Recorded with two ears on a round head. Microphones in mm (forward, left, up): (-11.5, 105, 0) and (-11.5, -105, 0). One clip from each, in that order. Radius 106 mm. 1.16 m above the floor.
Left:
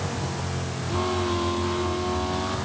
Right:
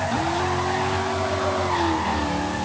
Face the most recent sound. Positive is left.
No sound to turn to.